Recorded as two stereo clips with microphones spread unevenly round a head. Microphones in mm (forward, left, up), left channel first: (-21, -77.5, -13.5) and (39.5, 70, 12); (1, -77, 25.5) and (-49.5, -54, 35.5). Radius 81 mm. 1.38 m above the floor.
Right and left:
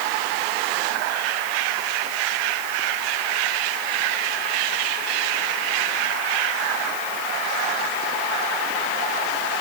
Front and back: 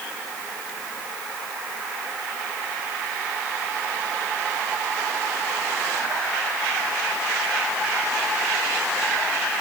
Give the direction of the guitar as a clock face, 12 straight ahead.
No guitar in this recording.